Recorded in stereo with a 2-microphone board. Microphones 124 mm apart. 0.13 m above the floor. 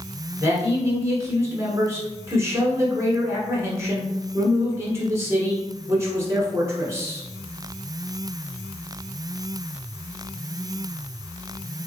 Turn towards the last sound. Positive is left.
turn(degrees=-20)  # may be behind; listen again after turning